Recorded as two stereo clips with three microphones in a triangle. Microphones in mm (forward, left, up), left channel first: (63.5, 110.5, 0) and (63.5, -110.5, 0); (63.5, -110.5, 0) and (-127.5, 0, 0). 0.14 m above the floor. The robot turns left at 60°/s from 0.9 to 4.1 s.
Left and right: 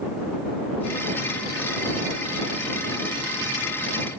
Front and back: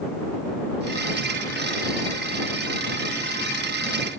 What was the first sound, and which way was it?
Only background noise.